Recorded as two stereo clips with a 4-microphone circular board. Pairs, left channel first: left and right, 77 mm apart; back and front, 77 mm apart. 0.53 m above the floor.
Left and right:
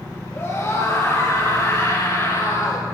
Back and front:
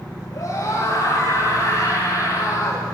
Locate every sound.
0.3 s a scream: 145° left, 9.5 m